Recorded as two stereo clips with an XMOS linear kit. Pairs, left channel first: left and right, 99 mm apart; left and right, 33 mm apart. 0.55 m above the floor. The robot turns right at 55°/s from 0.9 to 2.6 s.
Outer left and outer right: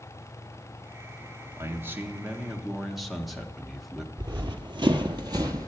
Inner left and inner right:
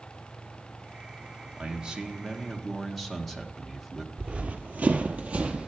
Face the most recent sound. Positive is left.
turn(degrees=-35)  # may be behind; listen again after turning